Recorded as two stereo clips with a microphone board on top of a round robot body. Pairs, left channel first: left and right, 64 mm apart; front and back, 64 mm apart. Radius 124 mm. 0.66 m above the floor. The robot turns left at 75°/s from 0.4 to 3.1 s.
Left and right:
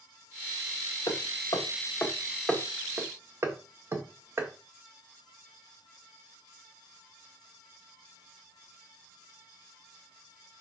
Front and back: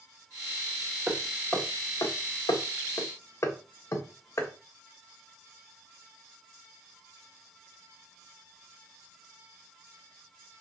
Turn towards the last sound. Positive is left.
turn(degrees=-40)